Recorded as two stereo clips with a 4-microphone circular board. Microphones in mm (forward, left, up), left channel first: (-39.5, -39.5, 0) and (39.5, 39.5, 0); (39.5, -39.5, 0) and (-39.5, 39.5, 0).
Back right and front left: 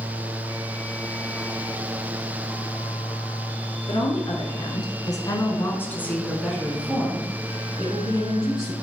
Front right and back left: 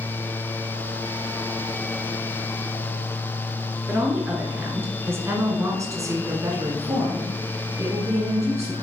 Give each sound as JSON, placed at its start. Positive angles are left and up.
{"t": 3.9, "sound": "a woman speaking", "azimuth_deg": -150, "distance_m": 1.8}